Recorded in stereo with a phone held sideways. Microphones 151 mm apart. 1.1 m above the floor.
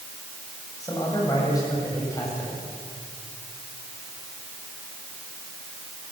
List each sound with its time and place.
0.8 s a man speaking: 20° left (ahead or behind), 8 m